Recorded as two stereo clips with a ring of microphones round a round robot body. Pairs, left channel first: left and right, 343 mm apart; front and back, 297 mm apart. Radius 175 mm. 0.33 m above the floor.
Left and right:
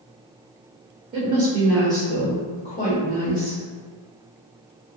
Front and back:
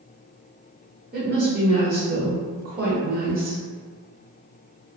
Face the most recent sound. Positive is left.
turn(degrees=130)